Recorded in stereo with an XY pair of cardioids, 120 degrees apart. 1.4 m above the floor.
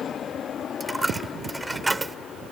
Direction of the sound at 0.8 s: 10° right.